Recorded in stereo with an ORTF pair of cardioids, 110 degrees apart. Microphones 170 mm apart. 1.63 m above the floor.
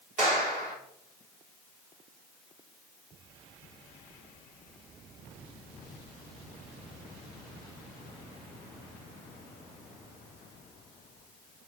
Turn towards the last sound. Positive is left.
turn(degrees=-50)